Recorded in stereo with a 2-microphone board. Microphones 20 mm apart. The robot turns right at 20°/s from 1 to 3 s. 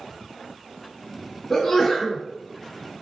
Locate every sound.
1.5 s a sneeze: 25° left (ahead or behind), 1.8 m; by 2.2 s 20° left (ahead or behind), 1.8 m